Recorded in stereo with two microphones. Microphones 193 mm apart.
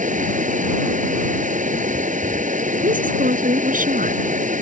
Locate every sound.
0.0 s running water: 40° right (ahead or behind)
2.8 s a woman speaking: 45° right (ahead or behind)